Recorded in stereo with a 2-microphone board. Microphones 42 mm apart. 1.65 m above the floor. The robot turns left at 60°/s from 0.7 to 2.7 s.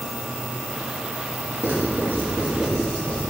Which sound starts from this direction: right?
Writing, at 1.6 s.